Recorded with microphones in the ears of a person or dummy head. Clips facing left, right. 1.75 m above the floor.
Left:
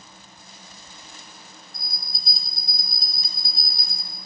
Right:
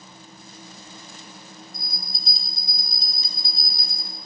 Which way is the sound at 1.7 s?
20° right (ahead or behind).